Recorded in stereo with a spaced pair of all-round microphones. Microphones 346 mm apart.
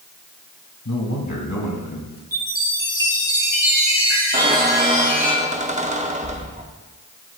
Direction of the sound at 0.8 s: 55° left (ahead or behind).